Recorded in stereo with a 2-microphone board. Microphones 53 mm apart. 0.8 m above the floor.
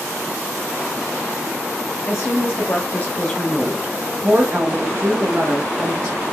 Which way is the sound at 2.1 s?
55° left (ahead or behind).